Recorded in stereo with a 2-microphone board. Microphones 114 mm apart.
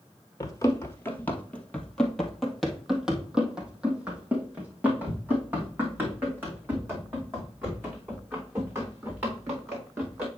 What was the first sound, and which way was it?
Running footsteps, 30° left (ahead or behind).